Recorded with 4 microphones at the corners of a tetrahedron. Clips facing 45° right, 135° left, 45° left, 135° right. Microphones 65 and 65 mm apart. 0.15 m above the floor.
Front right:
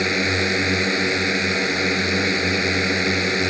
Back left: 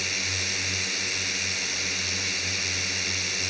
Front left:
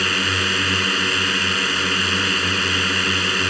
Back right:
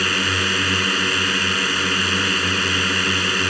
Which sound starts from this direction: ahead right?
A drone, at 0.0 s.